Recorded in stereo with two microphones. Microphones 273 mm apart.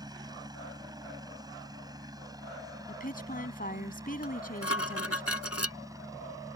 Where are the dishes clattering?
60° left (ahead or behind).